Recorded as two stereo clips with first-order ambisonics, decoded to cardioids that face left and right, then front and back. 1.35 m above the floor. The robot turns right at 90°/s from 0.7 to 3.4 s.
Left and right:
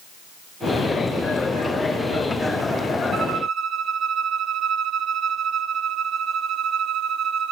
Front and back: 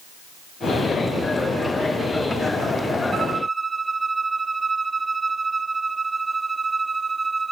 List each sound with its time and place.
3.1 s a violin: 125° right, 0.6 m; by 7.5 s 100° right, 0.6 m